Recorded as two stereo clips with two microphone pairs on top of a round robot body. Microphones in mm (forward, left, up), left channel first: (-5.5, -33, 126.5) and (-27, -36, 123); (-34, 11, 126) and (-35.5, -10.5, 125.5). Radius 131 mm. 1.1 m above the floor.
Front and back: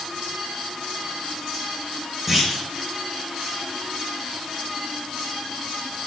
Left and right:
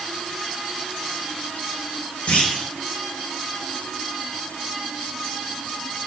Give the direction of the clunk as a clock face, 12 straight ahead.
8 o'clock.